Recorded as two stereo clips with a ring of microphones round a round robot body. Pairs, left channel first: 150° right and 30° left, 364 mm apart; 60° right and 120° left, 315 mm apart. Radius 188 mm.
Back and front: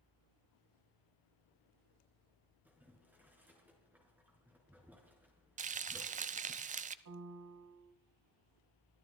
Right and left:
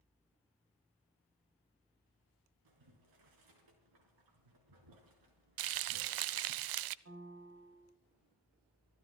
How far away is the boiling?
About 4.5 m.